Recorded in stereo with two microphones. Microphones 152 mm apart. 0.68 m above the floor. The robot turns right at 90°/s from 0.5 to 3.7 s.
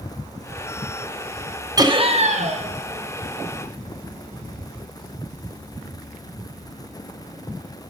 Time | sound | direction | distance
1.8 | laughter | 145° right | 1.3 m